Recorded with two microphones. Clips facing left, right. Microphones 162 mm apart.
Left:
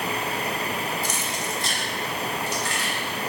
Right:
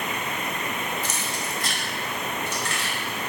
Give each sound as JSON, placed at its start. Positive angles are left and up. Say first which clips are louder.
{"t": 1.0, "sound": "keys jangling", "louder": "left 2 dB", "side_deg": 10, "distance_m": 0.5}